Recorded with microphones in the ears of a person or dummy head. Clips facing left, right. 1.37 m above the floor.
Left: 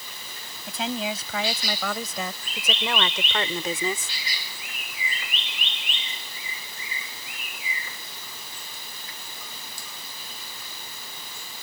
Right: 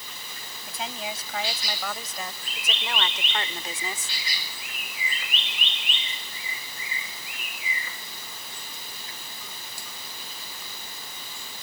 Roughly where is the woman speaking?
Left.